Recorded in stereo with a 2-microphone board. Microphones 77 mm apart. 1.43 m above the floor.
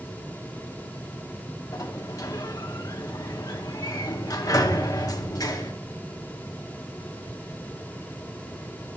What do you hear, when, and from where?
1.7 s a sliding door: 50° left (ahead or behind), 0.7 m